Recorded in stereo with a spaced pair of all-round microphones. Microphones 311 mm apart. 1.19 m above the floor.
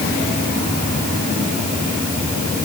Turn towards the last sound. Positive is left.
No sound to turn to.